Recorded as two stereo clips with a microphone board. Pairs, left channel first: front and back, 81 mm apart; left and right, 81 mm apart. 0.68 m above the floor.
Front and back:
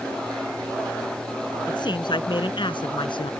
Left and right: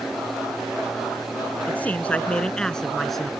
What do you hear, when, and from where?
1.7 s a man speaking: 20° left; by 3.3 s straight ahead